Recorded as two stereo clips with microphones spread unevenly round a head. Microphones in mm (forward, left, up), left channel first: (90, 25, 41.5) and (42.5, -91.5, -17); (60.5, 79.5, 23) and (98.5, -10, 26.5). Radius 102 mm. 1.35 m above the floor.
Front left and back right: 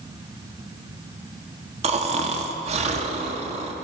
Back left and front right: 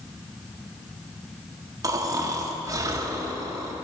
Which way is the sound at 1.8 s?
70° right.